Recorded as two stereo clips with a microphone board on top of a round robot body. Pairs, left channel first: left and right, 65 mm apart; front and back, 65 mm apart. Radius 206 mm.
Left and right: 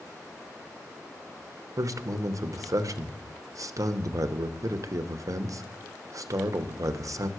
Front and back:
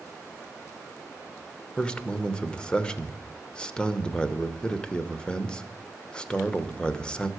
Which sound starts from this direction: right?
A man speaking, at 1.8 s.